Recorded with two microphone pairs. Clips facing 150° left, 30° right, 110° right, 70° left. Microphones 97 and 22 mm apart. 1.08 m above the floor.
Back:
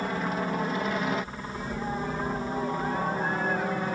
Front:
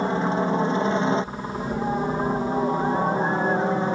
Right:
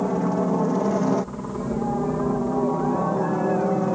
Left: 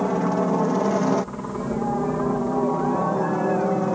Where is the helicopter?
15° left; by 4.0 s 5° right.